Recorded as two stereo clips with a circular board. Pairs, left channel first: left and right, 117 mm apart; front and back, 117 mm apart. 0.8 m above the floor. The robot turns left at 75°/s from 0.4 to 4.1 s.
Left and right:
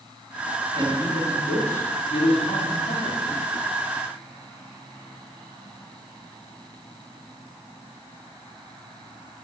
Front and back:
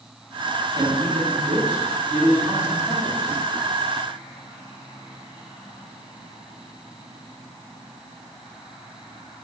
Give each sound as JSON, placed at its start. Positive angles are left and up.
{"t": 0.8, "sound": "a man speaking", "azimuth_deg": -130, "distance_m": 6.0}